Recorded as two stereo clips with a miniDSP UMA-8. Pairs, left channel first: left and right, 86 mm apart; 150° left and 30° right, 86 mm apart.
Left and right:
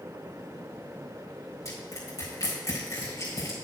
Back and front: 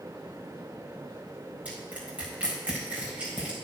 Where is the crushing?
45° left, 4.5 m.